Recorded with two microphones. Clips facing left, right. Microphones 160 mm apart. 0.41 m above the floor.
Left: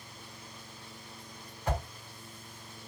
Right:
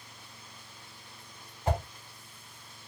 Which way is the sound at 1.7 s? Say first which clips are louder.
Right 3 dB; 25° right (ahead or behind).